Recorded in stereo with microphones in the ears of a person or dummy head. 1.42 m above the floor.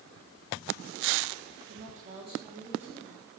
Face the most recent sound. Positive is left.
turn(degrees=5)  # may be behind; listen again after turning